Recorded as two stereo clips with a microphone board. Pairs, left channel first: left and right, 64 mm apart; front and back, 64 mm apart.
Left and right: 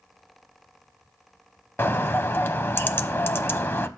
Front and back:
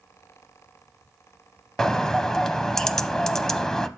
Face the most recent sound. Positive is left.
turn(degrees=80)